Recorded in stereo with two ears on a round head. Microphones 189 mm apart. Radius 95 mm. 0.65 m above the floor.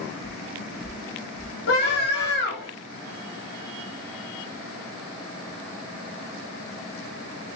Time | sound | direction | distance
0.2 | footsteps | 30° left (ahead or behind) | 0.7 m
1.7 | a scream | 50° left (ahead or behind) | 1.8 m